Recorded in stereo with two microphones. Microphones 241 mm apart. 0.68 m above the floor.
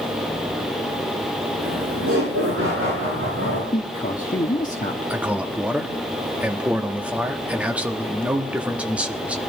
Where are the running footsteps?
No running footsteps in this recording.